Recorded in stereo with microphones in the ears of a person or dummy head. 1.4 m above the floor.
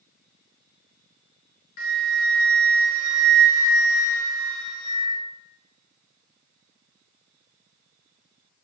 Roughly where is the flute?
Left.